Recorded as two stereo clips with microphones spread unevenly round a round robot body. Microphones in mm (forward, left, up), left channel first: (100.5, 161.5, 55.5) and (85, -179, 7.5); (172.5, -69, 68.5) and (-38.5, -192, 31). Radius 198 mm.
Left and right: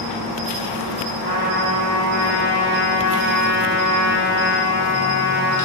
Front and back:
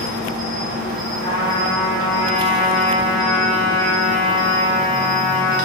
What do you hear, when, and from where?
0.0 s an insect: 95° right, 0.8 m
1.2 s a trumpet: 150° left, 1.2 m